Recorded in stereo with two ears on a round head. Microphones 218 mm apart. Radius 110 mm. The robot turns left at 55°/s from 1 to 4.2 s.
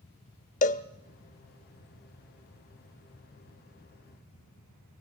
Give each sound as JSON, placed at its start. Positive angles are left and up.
{"t": 0.6, "sound": "a cowbell", "side_deg": 30, "distance_m": 0.7}